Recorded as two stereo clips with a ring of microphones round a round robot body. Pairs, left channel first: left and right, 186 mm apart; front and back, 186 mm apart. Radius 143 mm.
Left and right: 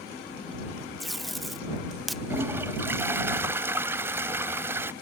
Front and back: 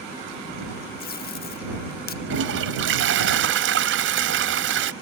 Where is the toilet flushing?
170° right.